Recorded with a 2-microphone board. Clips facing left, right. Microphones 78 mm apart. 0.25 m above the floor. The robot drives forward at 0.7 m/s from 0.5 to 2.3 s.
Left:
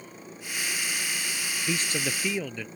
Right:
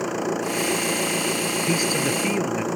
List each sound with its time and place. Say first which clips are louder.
0.0 s an engine running: right 19 dB; 85° right
1.7 s a man speaking: right 5 dB; 10° right (ahead or behind)